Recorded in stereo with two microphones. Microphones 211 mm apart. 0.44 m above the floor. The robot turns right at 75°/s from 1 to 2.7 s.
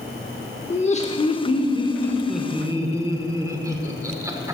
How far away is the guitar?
No guitar in this recording.